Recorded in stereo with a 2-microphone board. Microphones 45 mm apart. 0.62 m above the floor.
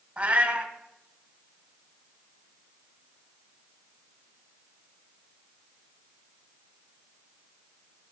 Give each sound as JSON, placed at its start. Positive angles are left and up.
{"t": 0.2, "sound": "a cat meowing", "side_deg": -45, "distance_m": 1.2}